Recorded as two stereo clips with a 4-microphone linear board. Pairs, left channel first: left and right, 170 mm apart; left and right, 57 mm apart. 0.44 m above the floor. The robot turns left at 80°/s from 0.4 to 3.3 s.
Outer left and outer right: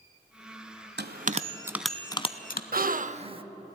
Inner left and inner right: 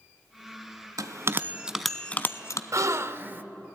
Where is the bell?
65° right (ahead or behind), 0.7 m; by 2.6 s 60° left (ahead or behind), 0.7 m.